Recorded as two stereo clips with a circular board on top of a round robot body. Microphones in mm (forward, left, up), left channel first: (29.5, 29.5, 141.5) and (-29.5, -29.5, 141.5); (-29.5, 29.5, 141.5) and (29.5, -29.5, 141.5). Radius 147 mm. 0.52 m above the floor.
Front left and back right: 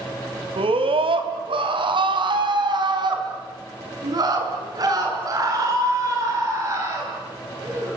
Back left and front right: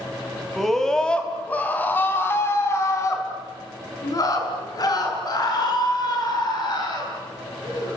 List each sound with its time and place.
0.6 s a scream: 135° right, 3.5 m; by 8.0 s 170° left, 10 m